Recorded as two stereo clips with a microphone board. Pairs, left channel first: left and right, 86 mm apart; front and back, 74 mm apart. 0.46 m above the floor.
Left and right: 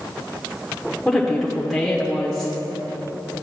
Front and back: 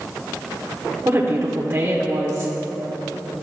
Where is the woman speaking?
170° left, 1.1 m.